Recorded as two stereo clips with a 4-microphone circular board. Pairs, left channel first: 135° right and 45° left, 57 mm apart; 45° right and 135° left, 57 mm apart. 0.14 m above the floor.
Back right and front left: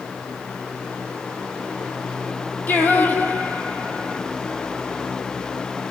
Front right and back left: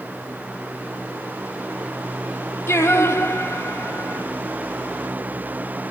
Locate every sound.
2.7 s singing: 75° right, 2.5 m